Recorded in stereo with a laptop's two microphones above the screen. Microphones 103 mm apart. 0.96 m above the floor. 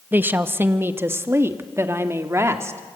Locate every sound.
0.1 s a woman speaking: 20° right (ahead or behind), 1.1 m; by 2.8 s 25° right (ahead or behind), 2.5 m